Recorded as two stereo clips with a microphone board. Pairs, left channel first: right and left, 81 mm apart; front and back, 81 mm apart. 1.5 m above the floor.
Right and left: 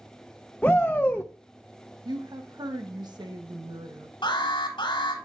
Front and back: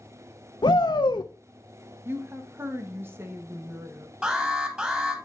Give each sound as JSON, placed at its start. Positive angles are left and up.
{"t": 0.6, "sound": "a shout", "azimuth_deg": -15, "distance_m": 0.7}
{"t": 2.0, "sound": "a woman speaking", "azimuth_deg": 120, "distance_m": 1.4}
{"t": 4.2, "sound": "an alarm", "azimuth_deg": -105, "distance_m": 3.5}